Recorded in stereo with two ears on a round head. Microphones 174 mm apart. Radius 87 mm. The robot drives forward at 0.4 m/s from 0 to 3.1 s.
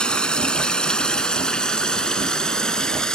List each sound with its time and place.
0.0 s running water: 5° left (ahead or behind)